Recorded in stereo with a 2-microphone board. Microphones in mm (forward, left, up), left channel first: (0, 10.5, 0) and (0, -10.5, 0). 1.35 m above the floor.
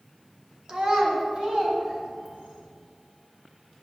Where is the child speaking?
40° right (ahead or behind), 1.1 m; by 2.6 s 75° right (ahead or behind), 3.5 m.